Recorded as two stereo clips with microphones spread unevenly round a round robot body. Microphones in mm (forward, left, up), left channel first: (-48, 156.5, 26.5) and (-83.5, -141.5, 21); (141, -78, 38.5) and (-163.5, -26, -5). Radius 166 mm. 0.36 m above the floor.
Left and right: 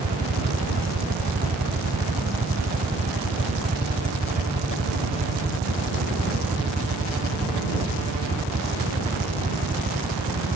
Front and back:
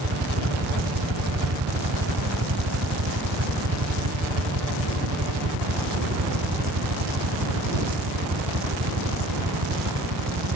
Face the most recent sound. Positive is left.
turn(degrees=-160)